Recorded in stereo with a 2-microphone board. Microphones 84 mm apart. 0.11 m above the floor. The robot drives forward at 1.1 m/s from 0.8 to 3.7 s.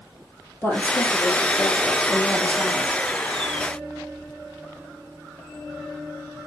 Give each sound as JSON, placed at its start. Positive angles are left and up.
{"t": 0.6, "sound": "a woman speaking", "side_deg": 25, "distance_m": 3.5}